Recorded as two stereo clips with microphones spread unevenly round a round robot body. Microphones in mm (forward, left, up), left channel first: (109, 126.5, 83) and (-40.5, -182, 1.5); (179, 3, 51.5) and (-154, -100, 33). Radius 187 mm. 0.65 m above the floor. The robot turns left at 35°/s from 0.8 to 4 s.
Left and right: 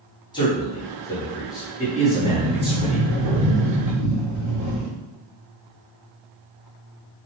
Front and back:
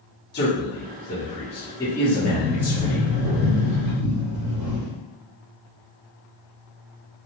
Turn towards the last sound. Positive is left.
turn(degrees=-145)